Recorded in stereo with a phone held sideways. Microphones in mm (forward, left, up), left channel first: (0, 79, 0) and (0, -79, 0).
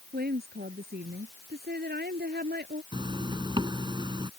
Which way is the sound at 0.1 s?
85° right.